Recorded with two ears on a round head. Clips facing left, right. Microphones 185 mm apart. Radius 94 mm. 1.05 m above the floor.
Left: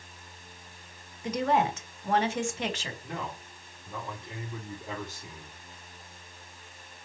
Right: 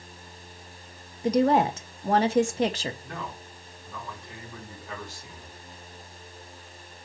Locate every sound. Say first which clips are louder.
1.2 s a woman speaking: right 6 dB; 35° right (ahead or behind), 1.1 m
3.0 s a man speaking: even; 15° left (ahead or behind), 2.5 m